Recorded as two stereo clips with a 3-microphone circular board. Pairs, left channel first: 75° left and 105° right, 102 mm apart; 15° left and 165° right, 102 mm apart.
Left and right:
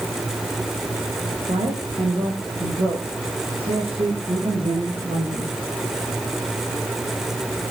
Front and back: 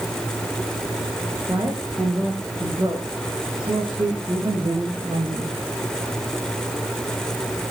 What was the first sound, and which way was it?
A woman speaking, 110° right.